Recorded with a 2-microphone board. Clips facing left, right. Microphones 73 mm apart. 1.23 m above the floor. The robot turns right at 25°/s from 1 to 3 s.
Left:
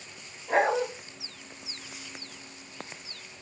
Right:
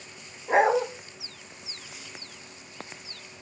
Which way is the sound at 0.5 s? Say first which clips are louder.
Right 3 dB; 20° right (ahead or behind).